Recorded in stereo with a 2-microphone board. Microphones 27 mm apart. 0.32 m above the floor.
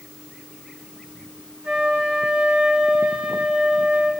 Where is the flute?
65° right (ahead or behind), 4.5 m.